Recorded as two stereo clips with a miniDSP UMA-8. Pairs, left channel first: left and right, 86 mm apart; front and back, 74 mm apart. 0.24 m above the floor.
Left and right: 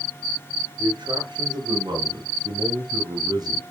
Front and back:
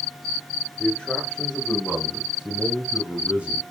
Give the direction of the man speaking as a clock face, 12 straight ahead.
3 o'clock.